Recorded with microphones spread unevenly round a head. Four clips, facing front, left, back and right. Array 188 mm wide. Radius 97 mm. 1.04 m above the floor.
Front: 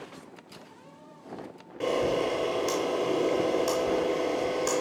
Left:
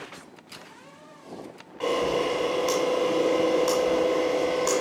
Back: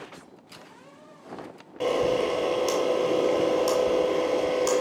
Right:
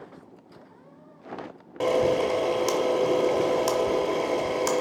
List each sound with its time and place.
1.8 s a camera shutter: 125° right, 1.6 m